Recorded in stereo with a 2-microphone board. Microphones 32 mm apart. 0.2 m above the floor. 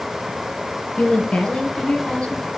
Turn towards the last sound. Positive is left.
turn(degrees=40)  # may be behind; listen again after turning